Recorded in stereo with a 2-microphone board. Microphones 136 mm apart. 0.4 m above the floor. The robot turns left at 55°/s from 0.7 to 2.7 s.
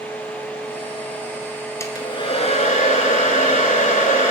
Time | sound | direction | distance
1.8 | a hair dryer | 160° left | 0.8 m